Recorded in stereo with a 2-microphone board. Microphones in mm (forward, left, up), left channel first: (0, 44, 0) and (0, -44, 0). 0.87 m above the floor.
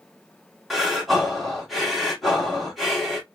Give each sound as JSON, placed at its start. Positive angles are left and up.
{"t": 0.7, "sound": "breathing", "side_deg": 0, "distance_m": 1.6}